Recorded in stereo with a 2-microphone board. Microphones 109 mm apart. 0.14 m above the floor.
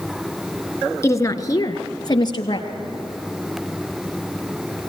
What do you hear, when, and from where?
1.0 s a woman speaking: 30° left (ahead or behind), 1.3 m; by 2.7 s 45° left (ahead or behind), 2.5 m